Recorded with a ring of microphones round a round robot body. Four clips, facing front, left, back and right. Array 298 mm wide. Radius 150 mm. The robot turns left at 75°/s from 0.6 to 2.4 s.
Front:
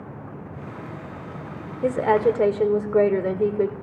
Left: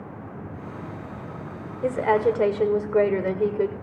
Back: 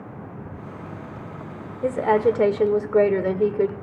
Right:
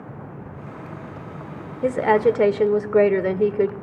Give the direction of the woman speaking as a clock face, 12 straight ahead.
2 o'clock.